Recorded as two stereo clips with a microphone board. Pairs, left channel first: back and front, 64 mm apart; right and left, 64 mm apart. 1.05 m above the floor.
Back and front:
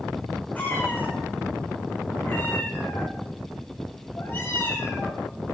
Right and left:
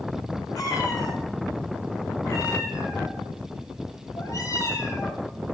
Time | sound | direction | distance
0.6 | a cat meowing | 120° right | 8 m